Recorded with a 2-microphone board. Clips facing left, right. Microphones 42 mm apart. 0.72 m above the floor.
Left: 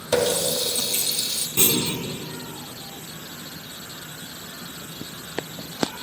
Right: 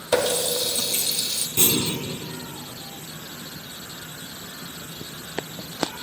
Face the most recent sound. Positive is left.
turn(degrees=30)  # may be behind; listen again after turning